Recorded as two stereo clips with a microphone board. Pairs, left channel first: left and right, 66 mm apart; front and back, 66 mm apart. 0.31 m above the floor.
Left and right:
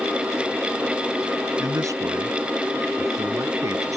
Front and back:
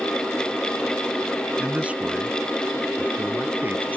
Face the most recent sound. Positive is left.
turn(degrees=-115)